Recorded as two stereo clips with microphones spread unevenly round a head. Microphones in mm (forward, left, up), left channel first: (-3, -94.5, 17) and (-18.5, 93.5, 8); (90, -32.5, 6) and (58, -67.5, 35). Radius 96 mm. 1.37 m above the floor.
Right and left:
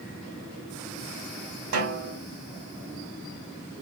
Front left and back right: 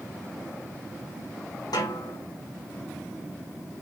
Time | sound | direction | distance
1.7 | a snare drum | 80° left | 2.0 m